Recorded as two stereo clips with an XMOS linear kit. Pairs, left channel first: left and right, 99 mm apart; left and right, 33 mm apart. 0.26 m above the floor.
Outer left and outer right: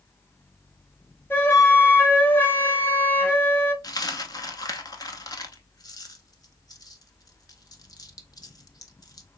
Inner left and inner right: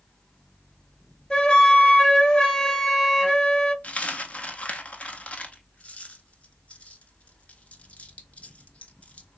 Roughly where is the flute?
Left.